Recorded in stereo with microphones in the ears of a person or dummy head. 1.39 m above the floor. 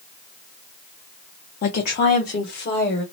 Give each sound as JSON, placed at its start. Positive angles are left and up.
{"t": 1.6, "sound": "a woman speaking", "side_deg": 45, "distance_m": 0.6}